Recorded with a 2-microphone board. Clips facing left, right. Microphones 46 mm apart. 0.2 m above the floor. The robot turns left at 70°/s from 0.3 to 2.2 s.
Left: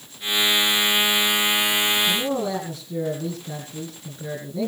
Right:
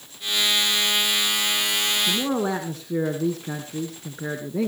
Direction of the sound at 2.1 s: 60° right (ahead or behind).